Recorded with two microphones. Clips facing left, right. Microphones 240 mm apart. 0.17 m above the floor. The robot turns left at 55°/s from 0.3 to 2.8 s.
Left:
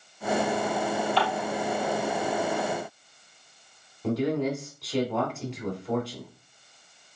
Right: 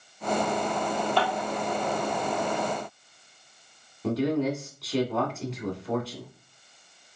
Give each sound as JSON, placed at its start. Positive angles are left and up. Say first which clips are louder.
{"t": 1.2, "sound": "dishes clattering", "louder": "even", "side_deg": -45, "distance_m": 3.0}
{"t": 4.0, "sound": "a man speaking", "louder": "right 1 dB", "side_deg": 0, "distance_m": 1.5}